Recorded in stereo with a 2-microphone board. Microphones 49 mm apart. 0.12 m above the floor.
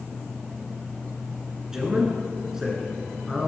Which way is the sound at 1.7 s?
10° right (ahead or behind).